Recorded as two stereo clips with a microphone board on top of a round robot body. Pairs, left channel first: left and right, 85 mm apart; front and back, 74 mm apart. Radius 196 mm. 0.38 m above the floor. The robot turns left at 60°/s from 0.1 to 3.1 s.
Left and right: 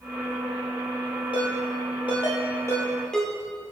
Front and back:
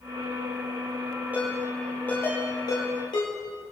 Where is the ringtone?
110° left, 5 m; by 3.3 s 5° left, 5 m.